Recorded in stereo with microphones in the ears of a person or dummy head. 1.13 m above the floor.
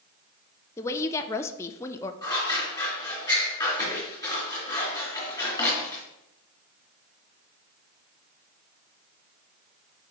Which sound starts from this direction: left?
Scissors, at 2.2 s.